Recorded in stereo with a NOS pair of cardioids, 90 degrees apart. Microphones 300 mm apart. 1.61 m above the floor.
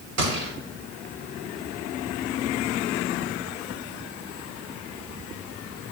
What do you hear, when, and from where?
0.2 s a gunshot: 55° right, 3 m